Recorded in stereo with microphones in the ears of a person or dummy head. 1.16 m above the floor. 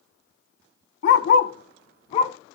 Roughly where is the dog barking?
Left.